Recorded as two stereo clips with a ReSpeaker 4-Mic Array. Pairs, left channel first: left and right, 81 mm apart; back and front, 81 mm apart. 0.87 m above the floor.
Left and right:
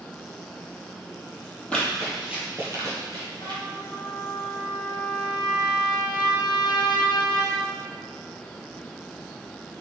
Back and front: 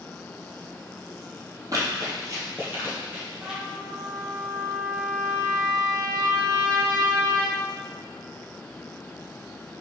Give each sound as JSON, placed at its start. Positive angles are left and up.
{"t": 1.7, "sound": "running footsteps", "azimuth_deg": 20, "distance_m": 1.2}
{"t": 3.4, "sound": "a trumpet", "azimuth_deg": 65, "distance_m": 0.7}